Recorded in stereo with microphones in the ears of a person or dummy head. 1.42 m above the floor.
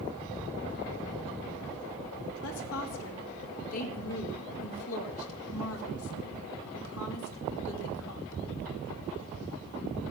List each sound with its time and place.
2.4 s a woman speaking: 80° left, 2.5 m